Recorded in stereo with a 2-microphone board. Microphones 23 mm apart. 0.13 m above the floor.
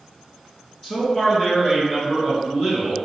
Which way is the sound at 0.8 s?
30° left (ahead or behind).